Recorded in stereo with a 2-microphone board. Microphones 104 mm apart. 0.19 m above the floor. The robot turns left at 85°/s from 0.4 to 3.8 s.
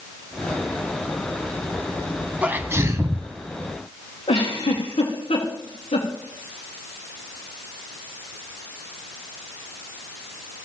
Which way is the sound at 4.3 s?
85° left.